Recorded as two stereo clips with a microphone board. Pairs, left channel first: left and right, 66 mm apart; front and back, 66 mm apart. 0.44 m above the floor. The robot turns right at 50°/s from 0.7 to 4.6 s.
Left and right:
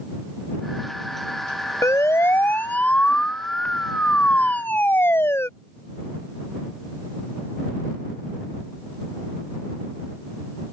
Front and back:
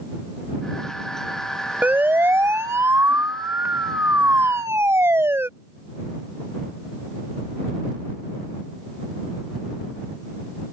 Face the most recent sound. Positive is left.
turn(degrees=130)